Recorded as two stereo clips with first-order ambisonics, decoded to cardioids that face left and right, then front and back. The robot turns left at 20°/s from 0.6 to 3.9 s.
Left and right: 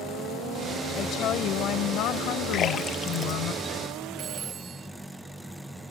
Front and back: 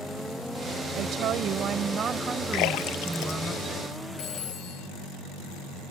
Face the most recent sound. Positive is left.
turn(degrees=-35)